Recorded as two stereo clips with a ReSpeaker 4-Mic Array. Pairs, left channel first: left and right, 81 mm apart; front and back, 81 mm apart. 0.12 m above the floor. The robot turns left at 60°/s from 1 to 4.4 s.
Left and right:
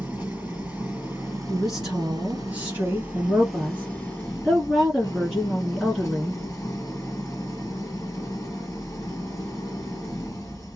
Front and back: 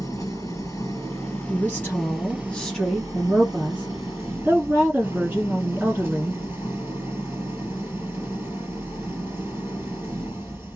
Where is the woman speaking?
5° left, 1.4 m; by 6.4 s 170° right, 1.4 m.